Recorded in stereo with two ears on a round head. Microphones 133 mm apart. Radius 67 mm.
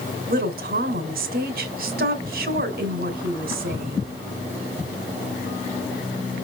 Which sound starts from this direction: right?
A woman speaking, at 0.3 s.